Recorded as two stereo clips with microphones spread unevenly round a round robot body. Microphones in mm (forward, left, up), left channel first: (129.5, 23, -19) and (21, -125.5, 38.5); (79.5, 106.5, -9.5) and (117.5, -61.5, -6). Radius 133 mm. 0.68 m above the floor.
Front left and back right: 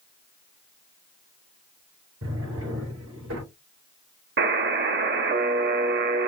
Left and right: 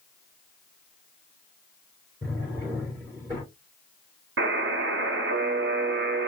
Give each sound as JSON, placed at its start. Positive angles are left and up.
{"t": 2.2, "sound": "a drawer", "azimuth_deg": -155, "distance_m": 3.0}
{"t": 4.4, "sound": "a buzzer", "azimuth_deg": -105, "distance_m": 1.0}